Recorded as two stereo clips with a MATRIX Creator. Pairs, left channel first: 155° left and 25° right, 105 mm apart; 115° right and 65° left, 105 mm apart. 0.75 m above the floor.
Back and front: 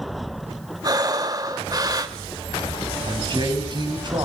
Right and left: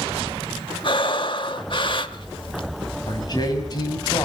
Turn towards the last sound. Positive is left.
turn(degrees=-65)